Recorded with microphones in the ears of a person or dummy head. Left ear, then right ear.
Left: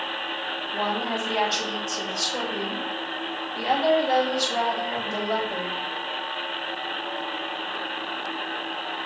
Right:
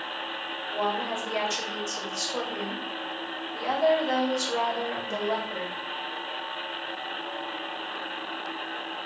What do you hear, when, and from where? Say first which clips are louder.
0.7 s a woman speaking: left 1 dB; 60° right (ahead or behind), 5.5 m